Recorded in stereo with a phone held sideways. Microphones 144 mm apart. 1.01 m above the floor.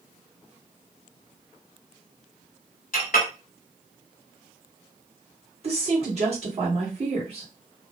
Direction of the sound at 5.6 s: 45° right (ahead or behind).